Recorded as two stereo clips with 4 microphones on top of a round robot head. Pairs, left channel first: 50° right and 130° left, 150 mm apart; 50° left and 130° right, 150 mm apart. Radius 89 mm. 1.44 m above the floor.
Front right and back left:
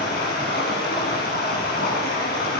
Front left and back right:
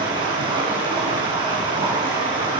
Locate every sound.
0.0 s running water: 70° right, 6.5 m